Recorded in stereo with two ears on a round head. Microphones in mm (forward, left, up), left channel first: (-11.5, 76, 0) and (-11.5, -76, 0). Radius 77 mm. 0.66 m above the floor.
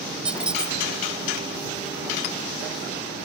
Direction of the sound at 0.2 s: 5° right (ahead or behind).